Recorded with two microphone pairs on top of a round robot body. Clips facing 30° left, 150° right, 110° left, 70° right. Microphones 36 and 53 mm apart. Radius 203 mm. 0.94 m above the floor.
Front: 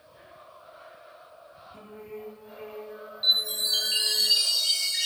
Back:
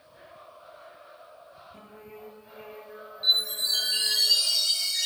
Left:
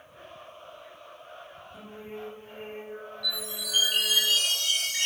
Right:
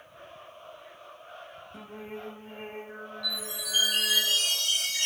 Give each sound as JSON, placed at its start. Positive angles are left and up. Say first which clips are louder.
{"t": 1.7, "sound": "singing", "louder": "front 7 dB, even", "azimuth_deg": -65, "distance_m": 1.9}
{"t": 3.2, "sound": "a chime", "louder": "even, left 1 dB", "azimuth_deg": 75, "distance_m": 0.8}